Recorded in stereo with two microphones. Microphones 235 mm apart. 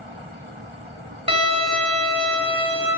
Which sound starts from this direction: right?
A violin, at 1.3 s.